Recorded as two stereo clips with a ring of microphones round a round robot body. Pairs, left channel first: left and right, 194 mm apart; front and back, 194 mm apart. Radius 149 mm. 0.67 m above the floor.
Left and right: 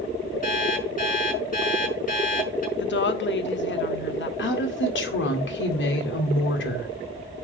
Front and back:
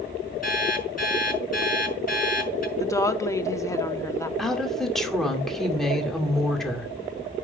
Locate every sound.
0.4 s an alarm clock: 45° left, 6 m
2.8 s a woman speaking: 75° left, 1.2 m
4.4 s a woman speaking: 90° left, 2 m